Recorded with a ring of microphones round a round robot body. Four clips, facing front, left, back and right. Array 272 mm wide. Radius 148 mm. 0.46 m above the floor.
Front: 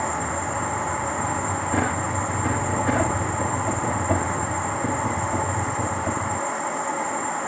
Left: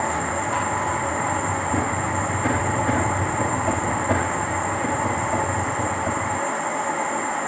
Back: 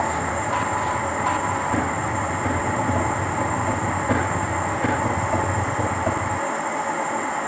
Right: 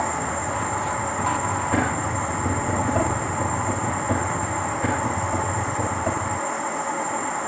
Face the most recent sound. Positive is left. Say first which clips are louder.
# left 1 dB, back 2 dB
turn(degrees=15)